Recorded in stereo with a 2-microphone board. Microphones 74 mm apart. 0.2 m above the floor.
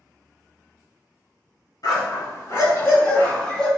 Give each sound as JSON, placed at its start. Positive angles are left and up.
{"t": 1.8, "sound": "a dog barking", "side_deg": 55, "distance_m": 1.2}